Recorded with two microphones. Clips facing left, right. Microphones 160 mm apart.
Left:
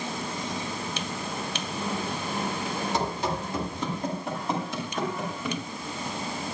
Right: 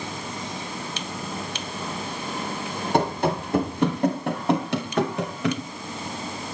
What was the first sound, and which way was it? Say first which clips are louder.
Running footsteps: right 9 dB; 60° right (ahead or behind).